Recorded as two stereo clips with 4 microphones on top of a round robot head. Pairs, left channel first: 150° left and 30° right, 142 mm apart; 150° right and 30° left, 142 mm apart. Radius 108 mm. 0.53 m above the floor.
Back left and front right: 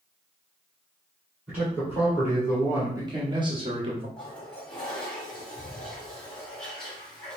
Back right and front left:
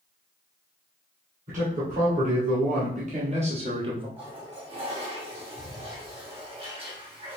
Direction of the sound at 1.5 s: 45° left.